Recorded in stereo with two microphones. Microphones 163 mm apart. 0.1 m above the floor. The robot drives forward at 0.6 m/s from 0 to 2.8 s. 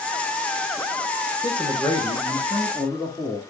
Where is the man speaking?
30° left (ahead or behind), 1.6 m; by 3.4 s 25° left (ahead or behind), 1.9 m.